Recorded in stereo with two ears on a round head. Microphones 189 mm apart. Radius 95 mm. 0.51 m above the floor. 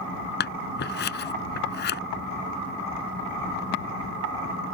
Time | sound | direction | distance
0.4 | scissors | 55° left (ahead or behind) | ?